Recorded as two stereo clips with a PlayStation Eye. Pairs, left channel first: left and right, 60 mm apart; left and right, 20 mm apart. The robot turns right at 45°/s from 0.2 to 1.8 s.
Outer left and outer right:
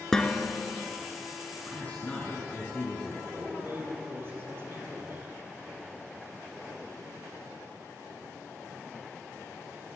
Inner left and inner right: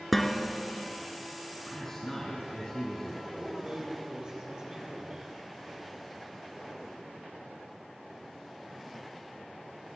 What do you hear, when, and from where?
0.1 s dishes clattering: 10° left (ahead or behind), 1.5 m; by 0.8 s 35° left (ahead or behind), 1.5 m
1.7 s a man speaking: 25° left (ahead or behind), 2.5 m; by 3.2 s 30° left (ahead or behind), 2.5 m
3.3 s a man speaking: 40° right (ahead or behind), 4 m